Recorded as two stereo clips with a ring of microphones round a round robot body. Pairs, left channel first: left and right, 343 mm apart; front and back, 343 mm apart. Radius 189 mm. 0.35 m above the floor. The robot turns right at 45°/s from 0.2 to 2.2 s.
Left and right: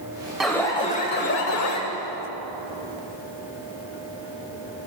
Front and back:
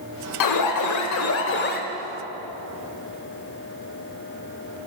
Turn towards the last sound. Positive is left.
turn(degrees=80)